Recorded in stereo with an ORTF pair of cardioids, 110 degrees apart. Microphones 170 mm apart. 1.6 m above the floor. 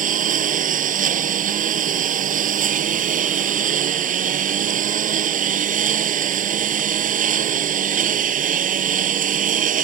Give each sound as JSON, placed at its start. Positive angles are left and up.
{"t": 0.0, "sound": "a lawn mower", "azimuth_deg": -50}